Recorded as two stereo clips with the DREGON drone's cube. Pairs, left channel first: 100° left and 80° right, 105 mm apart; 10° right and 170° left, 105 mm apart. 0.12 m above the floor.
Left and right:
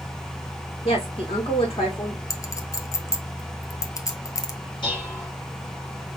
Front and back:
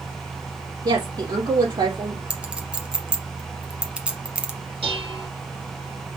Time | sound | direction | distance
0.8 | a woman speaking | 125° left | 4 m
2.3 | a clink | 100° left | 1.0 m
4.8 | dishes clattering | 140° left | 3.5 m